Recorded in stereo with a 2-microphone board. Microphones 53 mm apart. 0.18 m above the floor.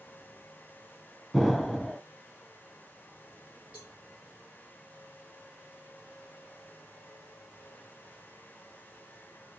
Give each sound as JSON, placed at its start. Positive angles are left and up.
{"t": 1.3, "sound": "an explosion", "side_deg": 0, "distance_m": 0.7}
{"t": 3.7, "sound": "a cowbell", "side_deg": -25, "distance_m": 3.0}